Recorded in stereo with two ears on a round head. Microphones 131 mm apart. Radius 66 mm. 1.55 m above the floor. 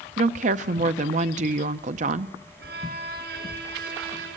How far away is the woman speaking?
About 0.7 m.